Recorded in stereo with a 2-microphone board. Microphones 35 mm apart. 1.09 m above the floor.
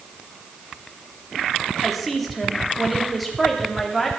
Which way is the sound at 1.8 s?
Centre (ahead or behind).